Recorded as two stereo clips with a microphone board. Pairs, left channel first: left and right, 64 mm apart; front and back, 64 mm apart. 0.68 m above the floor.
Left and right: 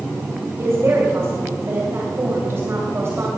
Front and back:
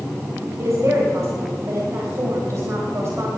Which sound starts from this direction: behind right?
A woman speaking, at 0.6 s.